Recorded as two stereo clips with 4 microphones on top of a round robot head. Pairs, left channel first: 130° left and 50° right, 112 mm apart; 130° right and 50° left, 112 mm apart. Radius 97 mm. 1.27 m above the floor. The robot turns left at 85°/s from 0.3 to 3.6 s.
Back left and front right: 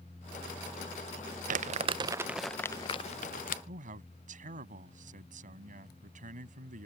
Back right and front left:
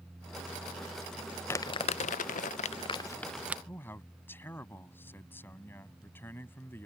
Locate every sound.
1.5 s crumpling: 60° right; by 3.6 s 125° left
3.7 s a man speaking: 60° right